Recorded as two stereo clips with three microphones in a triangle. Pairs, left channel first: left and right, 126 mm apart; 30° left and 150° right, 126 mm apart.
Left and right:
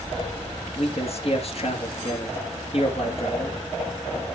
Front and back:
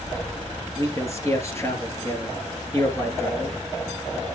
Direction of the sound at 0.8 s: 90° left.